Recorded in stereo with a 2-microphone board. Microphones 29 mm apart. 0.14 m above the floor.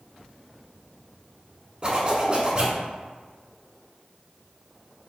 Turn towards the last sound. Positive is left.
turn(degrees=-30)  # may be behind; listen again after turning